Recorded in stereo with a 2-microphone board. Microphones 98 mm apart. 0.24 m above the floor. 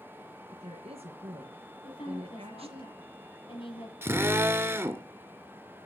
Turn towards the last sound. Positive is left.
turn(degrees=-25)  # may be behind; listen again after turning